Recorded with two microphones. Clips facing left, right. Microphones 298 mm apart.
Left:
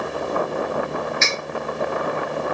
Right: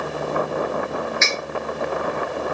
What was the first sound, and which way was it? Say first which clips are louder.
Cutlery clinking: even; 40° left (ahead or behind).